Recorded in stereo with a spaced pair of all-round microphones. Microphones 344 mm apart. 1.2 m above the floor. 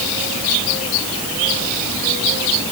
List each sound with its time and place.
Only background noise.